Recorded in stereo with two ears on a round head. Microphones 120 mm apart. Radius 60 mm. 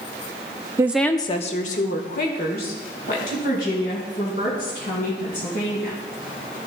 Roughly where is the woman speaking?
Right.